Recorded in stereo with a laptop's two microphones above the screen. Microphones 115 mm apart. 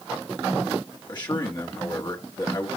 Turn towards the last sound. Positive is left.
turn(degrees=40)  # may be behind; listen again after turning